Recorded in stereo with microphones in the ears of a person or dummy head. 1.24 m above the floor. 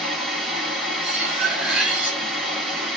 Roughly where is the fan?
Centre.